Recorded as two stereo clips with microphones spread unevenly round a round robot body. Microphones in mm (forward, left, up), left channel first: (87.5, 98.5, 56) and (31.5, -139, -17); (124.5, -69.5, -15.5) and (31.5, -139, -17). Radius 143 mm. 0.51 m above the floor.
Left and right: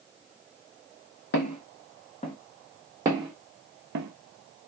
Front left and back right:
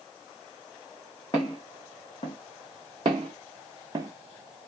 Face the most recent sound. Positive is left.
turn(degrees=-70)